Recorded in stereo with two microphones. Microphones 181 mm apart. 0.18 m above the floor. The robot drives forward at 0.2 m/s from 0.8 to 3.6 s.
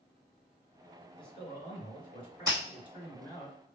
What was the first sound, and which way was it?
A man speaking, 30° left (ahead or behind).